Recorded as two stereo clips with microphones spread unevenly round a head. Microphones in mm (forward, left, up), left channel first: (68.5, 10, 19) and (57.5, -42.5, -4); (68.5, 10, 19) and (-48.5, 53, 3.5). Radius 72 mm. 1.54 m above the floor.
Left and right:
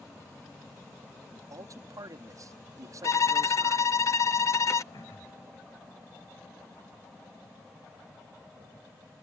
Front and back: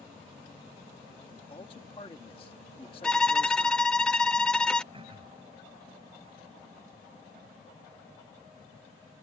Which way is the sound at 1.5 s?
75° right.